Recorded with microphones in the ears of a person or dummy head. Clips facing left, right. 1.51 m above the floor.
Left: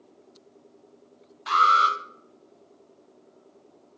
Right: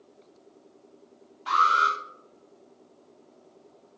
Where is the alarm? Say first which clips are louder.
Left 2 dB; 35° left (ahead or behind), 0.5 m.